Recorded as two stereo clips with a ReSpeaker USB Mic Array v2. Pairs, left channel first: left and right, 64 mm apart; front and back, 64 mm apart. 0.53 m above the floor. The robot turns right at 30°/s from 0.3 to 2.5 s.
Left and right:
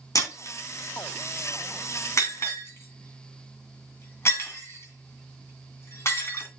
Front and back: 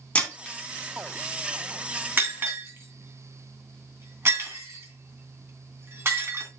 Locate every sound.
0.1 s breaking glass: 70° left, 3 m; by 6.5 s 135° left, 3 m